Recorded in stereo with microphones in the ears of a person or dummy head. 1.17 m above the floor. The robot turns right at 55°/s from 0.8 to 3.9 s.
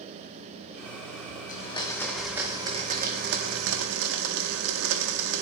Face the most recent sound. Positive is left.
turn(degrees=-90)